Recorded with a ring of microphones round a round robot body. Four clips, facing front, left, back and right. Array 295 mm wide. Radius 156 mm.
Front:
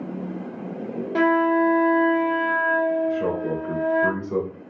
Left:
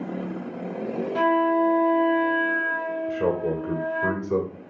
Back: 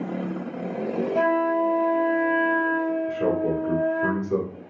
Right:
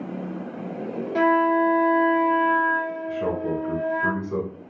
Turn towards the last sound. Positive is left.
turn(degrees=95)